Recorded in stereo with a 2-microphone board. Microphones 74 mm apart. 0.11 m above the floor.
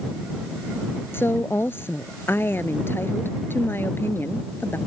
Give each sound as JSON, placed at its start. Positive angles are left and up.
{"t": 1.1, "sound": "a woman speaking", "side_deg": 30}